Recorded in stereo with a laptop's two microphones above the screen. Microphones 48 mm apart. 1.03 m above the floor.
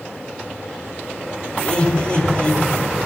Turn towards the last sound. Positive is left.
turn(degrees=20)  # may be behind; listen again after turning